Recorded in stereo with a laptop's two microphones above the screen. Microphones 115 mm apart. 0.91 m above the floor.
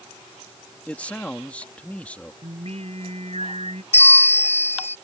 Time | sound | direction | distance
0.9 | a man speaking | 10° left (ahead or behind) | ?
2.4 | singing | 65° right (ahead or behind) | ?
3.9 | a bell | 65° left (ahead or behind) | ?